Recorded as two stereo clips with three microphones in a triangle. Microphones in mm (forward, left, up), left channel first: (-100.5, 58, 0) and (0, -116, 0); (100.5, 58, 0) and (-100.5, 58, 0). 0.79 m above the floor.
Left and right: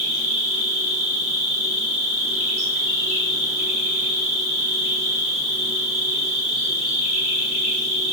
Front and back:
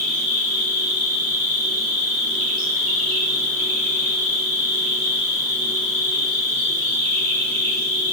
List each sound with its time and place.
0.0 s an insect: 85° right, 1.9 m